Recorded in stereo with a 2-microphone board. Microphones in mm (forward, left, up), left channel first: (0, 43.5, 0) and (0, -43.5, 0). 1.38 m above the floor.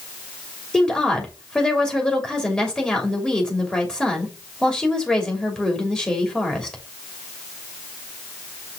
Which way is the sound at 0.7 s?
10° left (ahead or behind).